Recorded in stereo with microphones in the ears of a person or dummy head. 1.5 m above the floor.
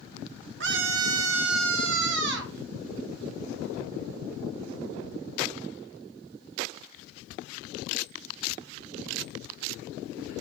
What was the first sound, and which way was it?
A scream, 65° right (ahead or behind).